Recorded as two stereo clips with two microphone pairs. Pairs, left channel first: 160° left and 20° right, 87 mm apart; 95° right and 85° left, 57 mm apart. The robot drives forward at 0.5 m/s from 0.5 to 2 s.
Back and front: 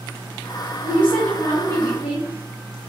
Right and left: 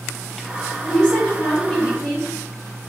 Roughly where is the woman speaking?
Behind.